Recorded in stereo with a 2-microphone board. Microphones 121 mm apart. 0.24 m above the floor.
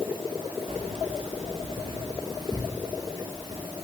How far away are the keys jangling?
About 2.0 m.